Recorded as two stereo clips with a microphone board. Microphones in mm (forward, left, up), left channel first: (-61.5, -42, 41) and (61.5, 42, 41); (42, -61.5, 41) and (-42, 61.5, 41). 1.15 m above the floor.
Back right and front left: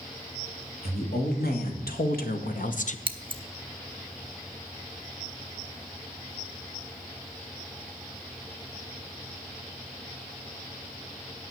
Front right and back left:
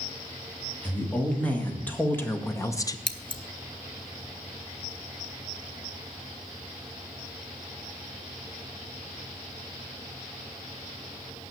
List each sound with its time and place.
0.8 s a woman speaking: 140° right, 3 m; by 3.0 s 115° right, 0.8 m
3.1 s scissors: 5° right, 0.9 m